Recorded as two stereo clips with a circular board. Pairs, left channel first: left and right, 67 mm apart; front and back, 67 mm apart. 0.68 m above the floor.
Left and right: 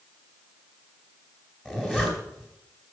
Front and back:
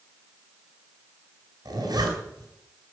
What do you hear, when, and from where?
1.6 s a zipper: 170° right, 4 m